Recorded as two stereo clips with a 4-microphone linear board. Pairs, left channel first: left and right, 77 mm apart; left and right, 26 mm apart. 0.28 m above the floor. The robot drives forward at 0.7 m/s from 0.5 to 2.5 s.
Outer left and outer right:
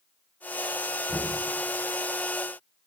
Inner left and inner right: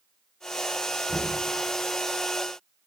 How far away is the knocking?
About 1.3 m.